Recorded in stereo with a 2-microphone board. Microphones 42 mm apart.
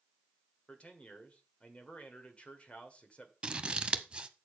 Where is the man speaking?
30° left (ahead or behind), 1.5 m.